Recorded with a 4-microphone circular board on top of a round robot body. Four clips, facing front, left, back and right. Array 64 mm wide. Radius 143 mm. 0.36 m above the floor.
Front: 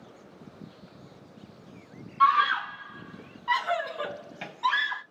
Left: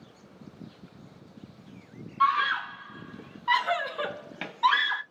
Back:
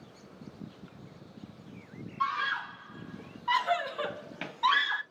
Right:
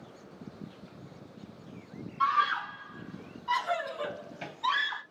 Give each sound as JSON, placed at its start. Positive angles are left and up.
{"t": 2.2, "sound": "a scream", "azimuth_deg": 35, "distance_m": 1.1}